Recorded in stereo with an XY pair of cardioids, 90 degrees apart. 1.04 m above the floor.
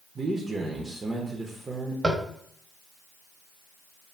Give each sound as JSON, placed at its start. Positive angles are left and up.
{"t": 0.1, "sound": "a man speaking", "azimuth_deg": -35, "distance_m": 0.6}
{"t": 2.0, "sound": "tapping", "azimuth_deg": -25, "distance_m": 0.8}